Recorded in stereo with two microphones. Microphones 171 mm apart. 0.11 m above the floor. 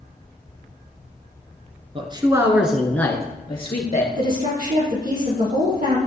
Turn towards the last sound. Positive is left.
turn(degrees=-60)  # may be behind; listen again after turning